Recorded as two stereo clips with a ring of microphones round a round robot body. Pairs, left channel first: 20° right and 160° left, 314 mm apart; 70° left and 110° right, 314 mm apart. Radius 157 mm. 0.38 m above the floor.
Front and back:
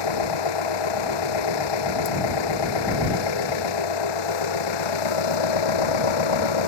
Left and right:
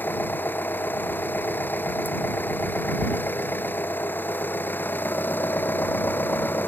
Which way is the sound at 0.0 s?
15° right.